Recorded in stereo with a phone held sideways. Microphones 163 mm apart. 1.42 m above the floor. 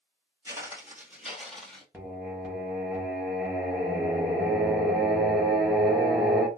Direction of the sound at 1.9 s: 10° right (ahead or behind).